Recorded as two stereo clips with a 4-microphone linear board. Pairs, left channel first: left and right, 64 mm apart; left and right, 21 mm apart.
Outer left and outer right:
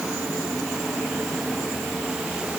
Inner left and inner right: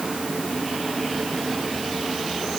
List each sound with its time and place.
Only background noise.